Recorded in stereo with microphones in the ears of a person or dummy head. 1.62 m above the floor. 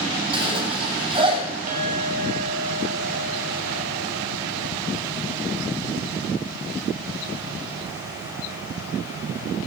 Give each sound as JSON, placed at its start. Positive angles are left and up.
{"t": 0.3, "sound": "a zipper", "side_deg": -35, "distance_m": 8.0}
{"t": 1.7, "sound": "a clink", "side_deg": -50, "distance_m": 5.0}